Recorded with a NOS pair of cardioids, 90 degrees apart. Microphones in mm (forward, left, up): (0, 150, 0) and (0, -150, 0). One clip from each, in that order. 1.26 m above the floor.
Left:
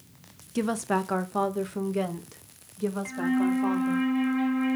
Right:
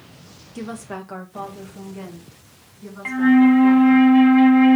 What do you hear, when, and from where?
0.6 s a woman speaking: 25° left, 0.9 m; by 4.0 s 60° left, 2.5 m
3.0 s a flute: 50° right, 0.5 m